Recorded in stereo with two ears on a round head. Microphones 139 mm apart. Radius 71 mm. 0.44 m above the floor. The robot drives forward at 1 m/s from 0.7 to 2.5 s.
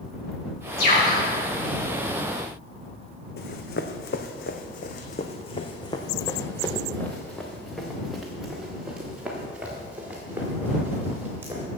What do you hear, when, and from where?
0.8 s a bird: 70° left (ahead or behind), 4.5 m; by 1.2 s 65° left (ahead or behind), 5 m
3.4 s running footsteps: 70° left (ahead or behind), 1.3 m; by 11.6 s 15° right (ahead or behind), 4 m